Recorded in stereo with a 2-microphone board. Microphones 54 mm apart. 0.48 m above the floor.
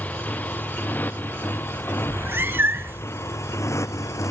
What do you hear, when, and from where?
0.0 s a motorcycle: 30° left (ahead or behind); by 4.3 s 80° left
2.1 s a cat meowing: 45° right (ahead or behind)